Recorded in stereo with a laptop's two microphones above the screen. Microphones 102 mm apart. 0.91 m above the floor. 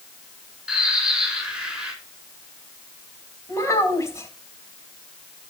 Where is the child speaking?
25° left (ahead or behind), 4.5 m.